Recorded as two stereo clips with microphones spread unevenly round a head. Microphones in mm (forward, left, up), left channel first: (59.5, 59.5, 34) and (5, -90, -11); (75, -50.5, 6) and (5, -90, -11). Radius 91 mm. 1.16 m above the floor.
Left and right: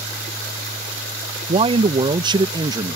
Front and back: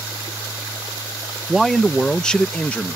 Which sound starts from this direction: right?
A man speaking, at 1.5 s.